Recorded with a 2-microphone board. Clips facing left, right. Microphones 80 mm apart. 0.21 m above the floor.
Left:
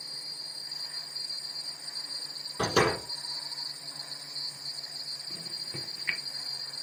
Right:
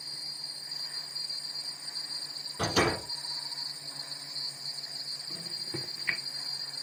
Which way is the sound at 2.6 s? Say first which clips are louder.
Left 2 dB; 60° left (ahead or behind).